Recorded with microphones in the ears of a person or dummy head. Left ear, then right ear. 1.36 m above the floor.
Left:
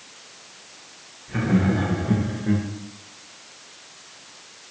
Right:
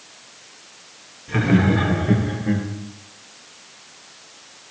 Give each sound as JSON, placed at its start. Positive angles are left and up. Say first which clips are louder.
{"t": 1.3, "sound": "laughter", "louder": "right 4 dB", "side_deg": -50, "distance_m": 2.5}